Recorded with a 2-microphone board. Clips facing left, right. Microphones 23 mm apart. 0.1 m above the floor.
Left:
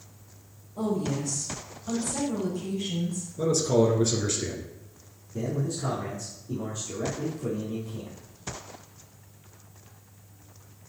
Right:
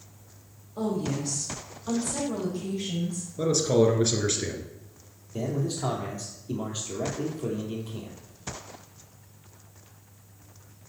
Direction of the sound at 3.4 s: 30° right (ahead or behind).